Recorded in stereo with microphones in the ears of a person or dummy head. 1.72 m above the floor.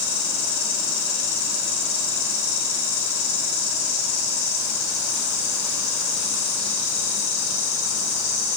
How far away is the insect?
About 3 m.